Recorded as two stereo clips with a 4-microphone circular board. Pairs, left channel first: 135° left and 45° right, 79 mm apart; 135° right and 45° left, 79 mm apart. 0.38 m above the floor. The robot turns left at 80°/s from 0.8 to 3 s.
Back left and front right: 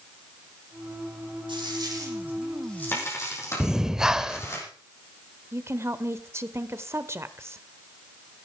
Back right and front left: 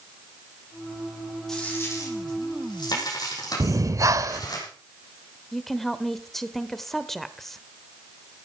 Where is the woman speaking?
50° right, 1.2 m.